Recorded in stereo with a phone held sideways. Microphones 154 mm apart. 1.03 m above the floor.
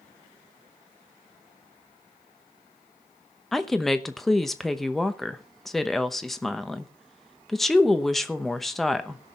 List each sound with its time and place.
3.5 s a woman speaking: centre (ahead or behind), 0.9 m